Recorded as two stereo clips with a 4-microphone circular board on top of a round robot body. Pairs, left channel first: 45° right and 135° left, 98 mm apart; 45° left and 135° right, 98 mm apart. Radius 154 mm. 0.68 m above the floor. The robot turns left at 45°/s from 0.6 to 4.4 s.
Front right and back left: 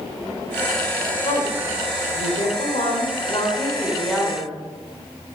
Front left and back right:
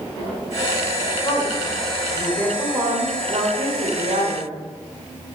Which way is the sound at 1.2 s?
5° right.